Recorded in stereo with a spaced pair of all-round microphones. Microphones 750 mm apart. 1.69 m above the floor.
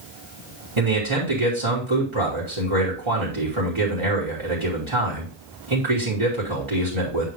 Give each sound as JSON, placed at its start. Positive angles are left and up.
{"t": 0.8, "sound": "a man speaking", "side_deg": -40, "distance_m": 3.0}